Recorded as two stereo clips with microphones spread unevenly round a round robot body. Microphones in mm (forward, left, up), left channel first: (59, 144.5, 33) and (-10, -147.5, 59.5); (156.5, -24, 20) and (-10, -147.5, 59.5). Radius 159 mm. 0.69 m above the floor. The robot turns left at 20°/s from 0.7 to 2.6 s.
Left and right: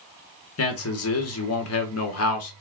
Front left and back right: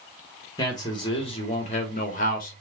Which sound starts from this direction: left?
A man speaking, at 0.6 s.